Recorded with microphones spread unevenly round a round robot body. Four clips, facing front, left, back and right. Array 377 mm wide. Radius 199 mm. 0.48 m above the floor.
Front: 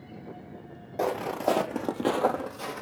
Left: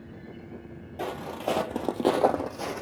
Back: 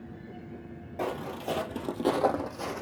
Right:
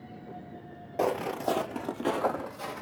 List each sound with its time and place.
1.0 s footsteps: 45° right, 0.6 m; by 2.8 s 80° left, 1.3 m